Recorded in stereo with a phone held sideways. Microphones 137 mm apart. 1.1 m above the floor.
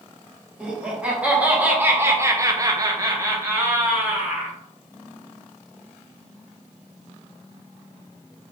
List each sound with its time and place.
0.6 s laughter: 5° right (ahead or behind), 1.4 m; by 4.6 s 10° right (ahead or behind), 1.2 m